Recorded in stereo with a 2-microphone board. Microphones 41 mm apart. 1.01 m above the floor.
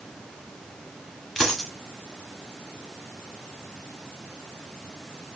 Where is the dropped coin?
5° left (ahead or behind), 1.1 m.